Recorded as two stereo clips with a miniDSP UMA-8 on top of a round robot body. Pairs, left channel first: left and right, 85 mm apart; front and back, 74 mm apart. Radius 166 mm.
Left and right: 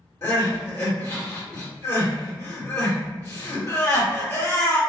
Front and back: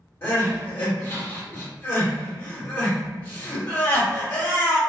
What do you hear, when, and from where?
0.2 s crying: 45° left, 1.8 m